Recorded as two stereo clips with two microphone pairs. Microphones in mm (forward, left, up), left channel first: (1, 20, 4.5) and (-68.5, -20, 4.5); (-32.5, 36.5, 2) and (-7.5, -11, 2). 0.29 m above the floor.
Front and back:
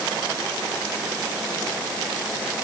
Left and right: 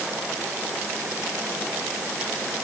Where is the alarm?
I don't hear an alarm.